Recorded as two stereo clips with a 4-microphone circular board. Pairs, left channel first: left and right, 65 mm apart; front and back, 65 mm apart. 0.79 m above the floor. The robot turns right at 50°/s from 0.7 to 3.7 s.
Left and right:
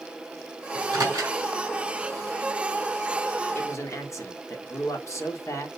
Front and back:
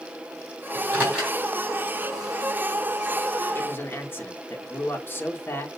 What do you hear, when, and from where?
0.7 s a microwave: 125° right, 3.5 m; by 1.4 s 95° right, 3.5 m
3.5 s a man speaking: 45° left, 1.6 m; by 5.7 s 55° left, 1.6 m